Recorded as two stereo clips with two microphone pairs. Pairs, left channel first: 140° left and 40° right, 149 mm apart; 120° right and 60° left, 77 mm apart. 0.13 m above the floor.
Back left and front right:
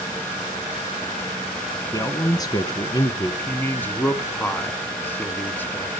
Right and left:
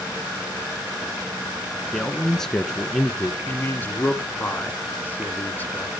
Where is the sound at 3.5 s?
155° right, 1.8 m.